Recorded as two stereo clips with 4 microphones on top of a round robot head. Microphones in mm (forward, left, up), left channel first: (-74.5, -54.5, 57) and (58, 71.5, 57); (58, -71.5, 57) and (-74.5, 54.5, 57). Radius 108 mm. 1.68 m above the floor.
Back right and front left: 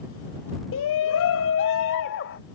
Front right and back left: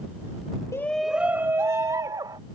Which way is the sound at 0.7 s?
120° right.